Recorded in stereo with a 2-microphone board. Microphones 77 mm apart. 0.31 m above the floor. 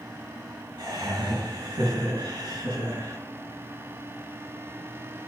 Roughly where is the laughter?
Right.